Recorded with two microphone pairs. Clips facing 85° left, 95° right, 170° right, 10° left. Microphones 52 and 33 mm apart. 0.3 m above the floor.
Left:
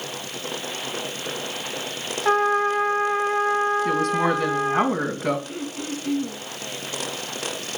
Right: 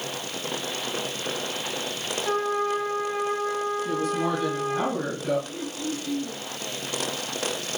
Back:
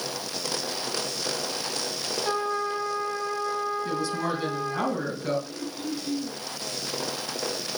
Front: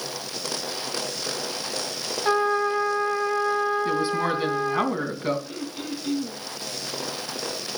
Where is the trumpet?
65° left, 2 m.